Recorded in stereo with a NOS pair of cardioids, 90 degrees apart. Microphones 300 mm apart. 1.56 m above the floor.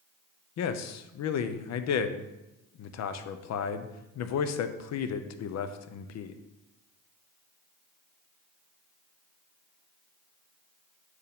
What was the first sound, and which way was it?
A man speaking, 60° left.